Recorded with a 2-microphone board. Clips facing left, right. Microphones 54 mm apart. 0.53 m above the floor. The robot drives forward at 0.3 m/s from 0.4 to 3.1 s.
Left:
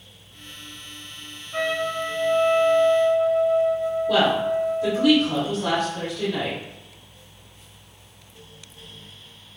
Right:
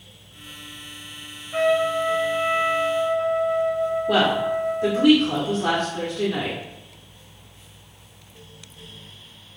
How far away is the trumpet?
About 0.9 m.